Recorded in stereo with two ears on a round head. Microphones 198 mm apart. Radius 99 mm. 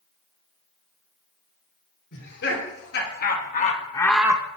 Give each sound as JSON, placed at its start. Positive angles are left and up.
{"t": 2.1, "sound": "laughter", "side_deg": 55, "distance_m": 3.5}